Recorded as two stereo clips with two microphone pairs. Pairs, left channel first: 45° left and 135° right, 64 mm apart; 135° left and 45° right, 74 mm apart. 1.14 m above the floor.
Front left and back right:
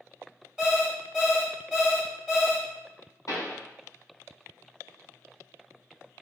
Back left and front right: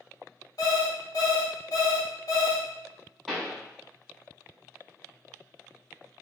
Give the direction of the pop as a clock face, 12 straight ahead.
11 o'clock.